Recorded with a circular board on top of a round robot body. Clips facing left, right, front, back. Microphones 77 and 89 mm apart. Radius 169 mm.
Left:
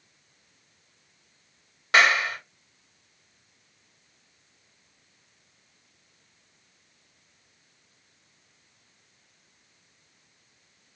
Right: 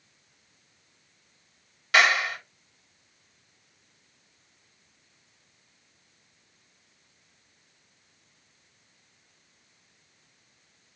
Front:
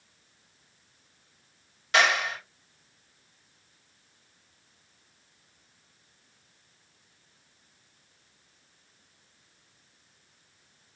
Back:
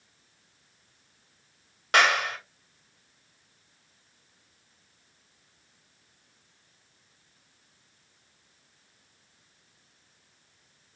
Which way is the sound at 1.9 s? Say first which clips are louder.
Left 1 dB, back 1 dB; 145° left.